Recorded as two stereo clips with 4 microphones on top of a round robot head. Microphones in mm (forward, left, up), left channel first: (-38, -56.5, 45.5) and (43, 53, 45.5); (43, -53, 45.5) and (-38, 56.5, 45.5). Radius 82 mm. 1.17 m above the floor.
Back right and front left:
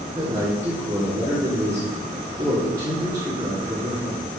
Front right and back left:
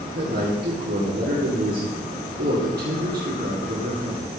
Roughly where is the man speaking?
Behind left.